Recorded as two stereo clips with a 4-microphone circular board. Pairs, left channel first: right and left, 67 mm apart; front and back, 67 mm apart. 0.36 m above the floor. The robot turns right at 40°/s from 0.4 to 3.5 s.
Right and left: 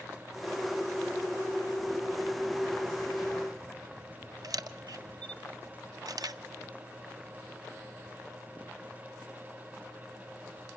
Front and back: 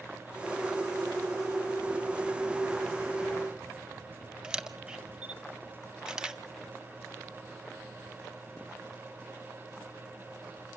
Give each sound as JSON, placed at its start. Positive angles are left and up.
{"t": 4.4, "sound": "a camera shutter", "azimuth_deg": 100, "distance_m": 0.7}